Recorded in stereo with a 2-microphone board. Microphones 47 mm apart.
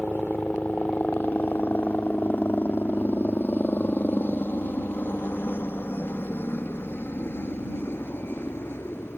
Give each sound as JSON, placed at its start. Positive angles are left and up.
{"t": 0.0, "sound": "a helicopter", "side_deg": 40}